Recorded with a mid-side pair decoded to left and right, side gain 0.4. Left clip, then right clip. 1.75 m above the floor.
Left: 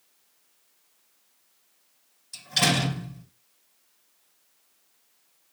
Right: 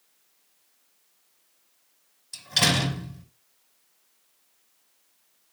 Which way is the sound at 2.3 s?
30° right.